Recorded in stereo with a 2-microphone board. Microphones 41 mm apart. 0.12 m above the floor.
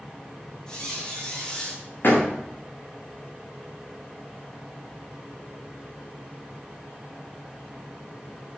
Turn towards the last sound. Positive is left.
turn(degrees=65)  # may be behind; listen again after turning